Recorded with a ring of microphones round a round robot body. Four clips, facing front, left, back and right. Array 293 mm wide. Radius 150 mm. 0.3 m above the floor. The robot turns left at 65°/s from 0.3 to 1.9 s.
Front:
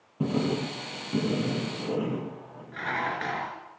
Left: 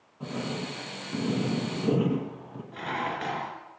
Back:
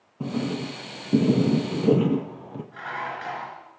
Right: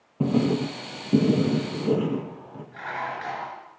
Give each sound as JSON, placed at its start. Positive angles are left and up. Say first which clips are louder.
{"t": 0.2, "sound": "writing", "louder": "right 11 dB, front 1 dB", "azimuth_deg": -80, "distance_m": 4.5}
{"t": 2.7, "sound": "dishes clattering", "louder": "even, front 3 dB", "azimuth_deg": 60, "distance_m": 3.5}